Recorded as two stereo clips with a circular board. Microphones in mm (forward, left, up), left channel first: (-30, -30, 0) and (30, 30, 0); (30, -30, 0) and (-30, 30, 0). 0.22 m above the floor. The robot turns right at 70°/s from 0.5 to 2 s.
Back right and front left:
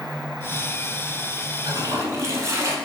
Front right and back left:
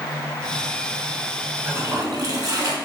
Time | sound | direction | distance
1.6 | a toilet flushing | 70° left | 0.6 m